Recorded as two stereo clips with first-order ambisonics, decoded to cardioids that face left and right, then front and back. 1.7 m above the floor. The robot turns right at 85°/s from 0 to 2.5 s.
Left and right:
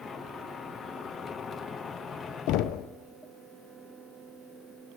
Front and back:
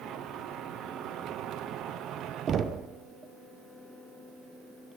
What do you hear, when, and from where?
2.5 s knocking: 120° left, 0.5 m